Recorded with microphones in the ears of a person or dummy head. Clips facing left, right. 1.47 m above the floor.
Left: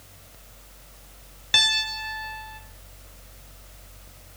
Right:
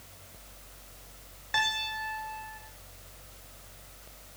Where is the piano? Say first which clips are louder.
Even; 45° left (ahead or behind), 3 m.